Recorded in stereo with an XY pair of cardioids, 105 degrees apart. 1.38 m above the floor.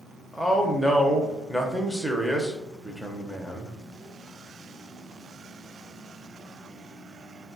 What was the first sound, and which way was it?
A man speaking, 5° right.